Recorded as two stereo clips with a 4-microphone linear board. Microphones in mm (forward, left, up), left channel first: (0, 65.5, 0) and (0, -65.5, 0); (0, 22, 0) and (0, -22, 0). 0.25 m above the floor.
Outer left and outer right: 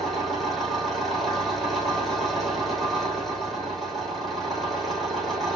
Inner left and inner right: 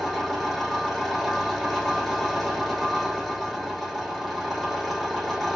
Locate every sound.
0.0 s an engine running: centre (ahead or behind), 4.5 m